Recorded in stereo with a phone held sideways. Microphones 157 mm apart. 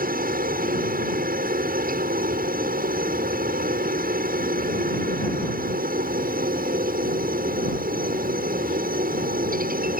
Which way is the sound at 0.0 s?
65° right (ahead or behind).